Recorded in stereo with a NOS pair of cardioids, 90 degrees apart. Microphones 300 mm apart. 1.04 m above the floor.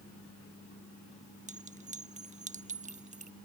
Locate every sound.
1.5 s a clink: 25° right